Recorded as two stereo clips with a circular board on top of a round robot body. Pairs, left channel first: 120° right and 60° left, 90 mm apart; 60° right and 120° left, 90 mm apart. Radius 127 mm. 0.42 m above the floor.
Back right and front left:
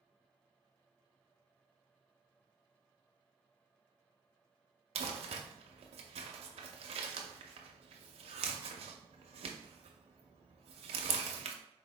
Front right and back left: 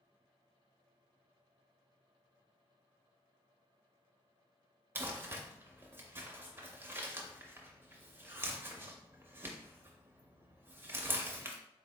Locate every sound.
5.0 s crumpling: 55° left, 0.5 m